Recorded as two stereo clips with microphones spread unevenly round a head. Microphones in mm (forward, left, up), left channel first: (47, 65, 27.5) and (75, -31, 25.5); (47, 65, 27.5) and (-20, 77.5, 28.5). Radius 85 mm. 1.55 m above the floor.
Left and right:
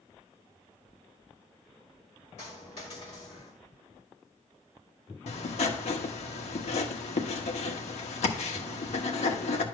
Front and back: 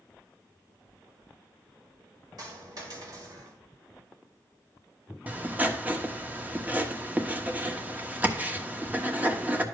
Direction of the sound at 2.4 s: 155° left.